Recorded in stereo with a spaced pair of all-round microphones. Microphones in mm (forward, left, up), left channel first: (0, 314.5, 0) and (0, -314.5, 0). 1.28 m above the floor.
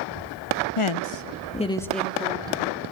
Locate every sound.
0.8 s a woman speaking: 60° left (ahead or behind), 1.0 m; by 2.8 s 10° right (ahead or behind), 3 m